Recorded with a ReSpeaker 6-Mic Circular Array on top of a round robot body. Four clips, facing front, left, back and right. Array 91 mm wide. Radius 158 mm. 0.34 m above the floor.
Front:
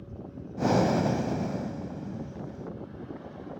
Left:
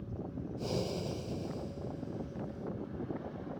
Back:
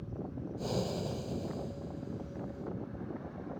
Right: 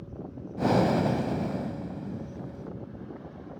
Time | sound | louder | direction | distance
0.6 | breathing | right 14 dB, front 12 dB | 50° right | ?